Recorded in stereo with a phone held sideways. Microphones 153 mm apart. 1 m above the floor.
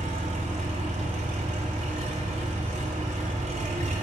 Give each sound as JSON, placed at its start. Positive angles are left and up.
{"t": 0.0, "sound": "an engine running", "side_deg": -50, "distance_m": 2.0}